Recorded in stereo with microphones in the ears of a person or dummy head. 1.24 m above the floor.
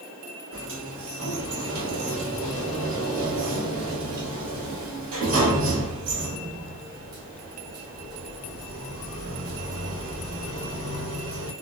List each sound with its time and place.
0.5 s a sliding door: 80° right, 1.2 m